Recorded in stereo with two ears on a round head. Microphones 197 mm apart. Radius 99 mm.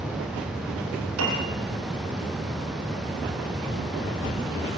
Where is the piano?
65° right (ahead or behind), 7.5 m.